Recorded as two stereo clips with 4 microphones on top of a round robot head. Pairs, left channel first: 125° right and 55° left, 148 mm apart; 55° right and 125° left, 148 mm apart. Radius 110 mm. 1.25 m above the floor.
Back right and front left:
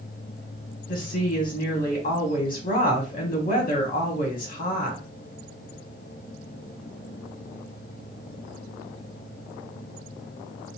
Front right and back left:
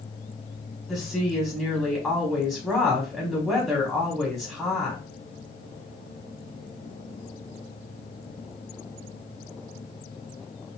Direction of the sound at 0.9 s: 140° right.